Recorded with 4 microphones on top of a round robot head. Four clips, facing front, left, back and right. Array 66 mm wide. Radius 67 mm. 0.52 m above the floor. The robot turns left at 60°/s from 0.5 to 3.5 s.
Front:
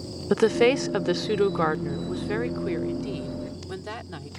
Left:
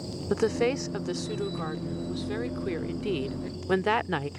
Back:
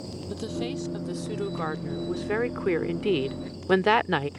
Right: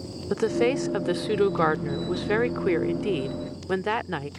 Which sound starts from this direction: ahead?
A woman speaking, at 0.3 s.